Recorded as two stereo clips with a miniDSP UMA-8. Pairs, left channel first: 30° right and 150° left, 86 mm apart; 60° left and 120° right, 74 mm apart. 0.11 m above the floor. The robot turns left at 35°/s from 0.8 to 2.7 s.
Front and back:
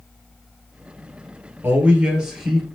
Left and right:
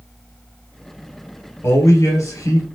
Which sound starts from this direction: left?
A man speaking, at 1.6 s.